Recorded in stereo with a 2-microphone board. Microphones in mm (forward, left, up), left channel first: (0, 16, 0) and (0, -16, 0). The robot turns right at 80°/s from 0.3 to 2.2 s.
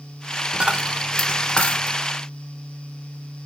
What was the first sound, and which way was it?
A dropped coin, 30° right (ahead or behind).